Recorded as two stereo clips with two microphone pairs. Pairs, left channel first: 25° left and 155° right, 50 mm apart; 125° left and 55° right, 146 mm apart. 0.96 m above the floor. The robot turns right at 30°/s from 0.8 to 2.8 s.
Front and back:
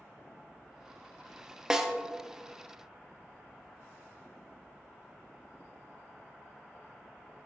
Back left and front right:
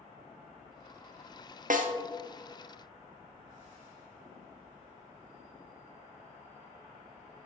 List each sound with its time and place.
1.7 s a snare drum: 80° right, 0.7 m; by 1.9 s 70° right, 0.7 m